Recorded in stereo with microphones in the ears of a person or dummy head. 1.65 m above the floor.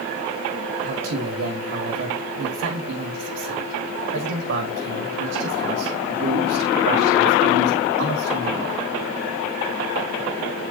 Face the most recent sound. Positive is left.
turn(degrees=-65)  # may be behind; listen again after turning